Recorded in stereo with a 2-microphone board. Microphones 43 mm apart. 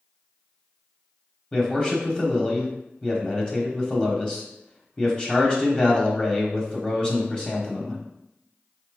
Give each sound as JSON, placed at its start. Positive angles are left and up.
{"t": 1.5, "sound": "a man speaking", "side_deg": 20, "distance_m": 1.0}